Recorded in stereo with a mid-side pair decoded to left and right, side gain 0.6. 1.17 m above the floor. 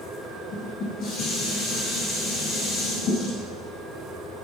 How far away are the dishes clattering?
About 6 m.